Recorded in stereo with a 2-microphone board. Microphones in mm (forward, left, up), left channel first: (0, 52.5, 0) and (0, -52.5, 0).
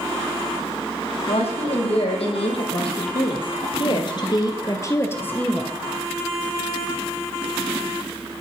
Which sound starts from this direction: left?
A woman speaking, at 1.3 s.